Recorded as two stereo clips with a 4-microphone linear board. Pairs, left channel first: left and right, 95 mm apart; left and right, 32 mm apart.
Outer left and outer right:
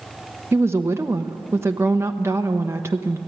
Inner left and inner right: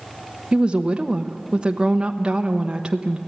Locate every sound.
0.5 s a woman speaking: 25° right (ahead or behind), 1.0 m